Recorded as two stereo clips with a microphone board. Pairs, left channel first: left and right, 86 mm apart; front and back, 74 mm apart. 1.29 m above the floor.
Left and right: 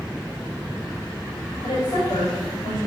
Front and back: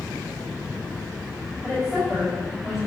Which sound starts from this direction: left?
A woman speaking, at 1.6 s.